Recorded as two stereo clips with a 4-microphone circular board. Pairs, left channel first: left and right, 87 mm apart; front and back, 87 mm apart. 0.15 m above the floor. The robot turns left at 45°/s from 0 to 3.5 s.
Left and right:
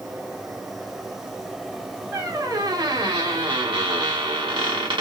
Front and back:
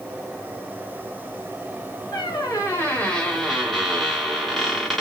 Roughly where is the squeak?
Ahead right.